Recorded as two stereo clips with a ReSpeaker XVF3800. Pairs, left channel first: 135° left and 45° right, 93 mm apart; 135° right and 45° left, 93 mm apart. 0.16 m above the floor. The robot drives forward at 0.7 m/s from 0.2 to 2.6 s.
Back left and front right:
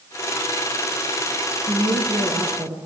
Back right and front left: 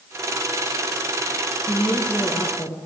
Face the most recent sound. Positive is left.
turn(degrees=-75)